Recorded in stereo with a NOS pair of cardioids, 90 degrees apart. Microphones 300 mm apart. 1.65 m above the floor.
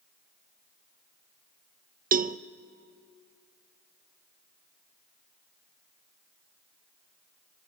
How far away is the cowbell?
About 0.6 m.